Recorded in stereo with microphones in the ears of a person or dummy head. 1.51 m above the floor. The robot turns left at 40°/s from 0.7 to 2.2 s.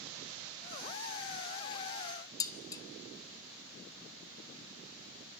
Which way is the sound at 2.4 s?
20° left (ahead or behind).